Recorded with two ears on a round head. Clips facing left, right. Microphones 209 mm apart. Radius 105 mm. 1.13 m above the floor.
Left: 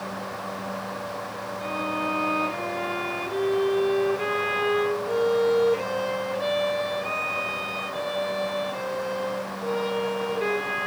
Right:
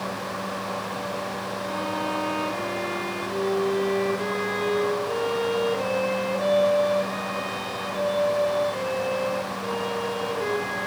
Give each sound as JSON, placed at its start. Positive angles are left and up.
{"t": 1.6, "sound": "a violin", "side_deg": 10, "distance_m": 3.5}